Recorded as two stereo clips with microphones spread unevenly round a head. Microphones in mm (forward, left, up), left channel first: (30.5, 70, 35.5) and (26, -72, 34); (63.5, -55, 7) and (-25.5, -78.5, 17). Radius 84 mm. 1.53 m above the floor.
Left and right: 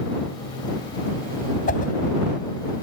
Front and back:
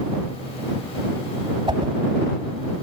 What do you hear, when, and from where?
1.7 s a whoosh: 130° left